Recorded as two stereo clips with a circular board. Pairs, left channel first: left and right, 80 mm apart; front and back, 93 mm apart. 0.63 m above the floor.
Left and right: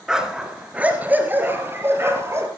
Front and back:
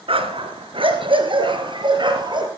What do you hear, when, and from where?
0.1 s a dog barking: 175° right, 2.5 m; by 2.5 s 145° right, 3.5 m